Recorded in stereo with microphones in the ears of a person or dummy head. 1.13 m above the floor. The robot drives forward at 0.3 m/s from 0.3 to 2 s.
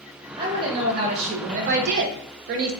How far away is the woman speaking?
About 0.8 m.